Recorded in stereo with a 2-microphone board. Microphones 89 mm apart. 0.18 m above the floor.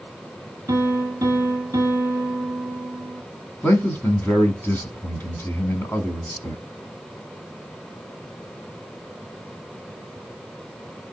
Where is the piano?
30° right (ahead or behind), 1.7 m.